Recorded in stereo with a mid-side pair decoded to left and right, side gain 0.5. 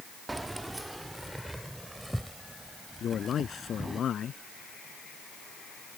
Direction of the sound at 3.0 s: 50° left.